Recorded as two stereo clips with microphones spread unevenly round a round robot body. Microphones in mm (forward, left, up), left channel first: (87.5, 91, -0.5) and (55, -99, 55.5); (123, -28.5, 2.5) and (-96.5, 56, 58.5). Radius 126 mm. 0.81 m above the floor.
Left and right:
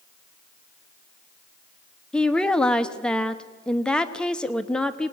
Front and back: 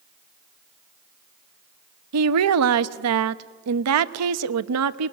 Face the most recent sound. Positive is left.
turn(degrees=155)